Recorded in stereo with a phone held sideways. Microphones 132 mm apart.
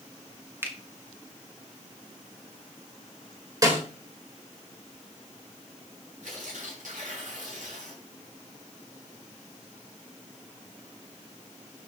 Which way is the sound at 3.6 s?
25° right (ahead or behind).